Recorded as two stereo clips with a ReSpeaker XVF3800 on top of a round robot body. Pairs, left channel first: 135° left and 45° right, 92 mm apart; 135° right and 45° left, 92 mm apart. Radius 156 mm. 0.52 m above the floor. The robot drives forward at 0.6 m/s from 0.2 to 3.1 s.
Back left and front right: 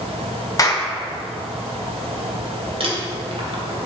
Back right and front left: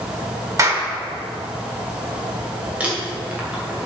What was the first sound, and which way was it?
A clap, 90° left.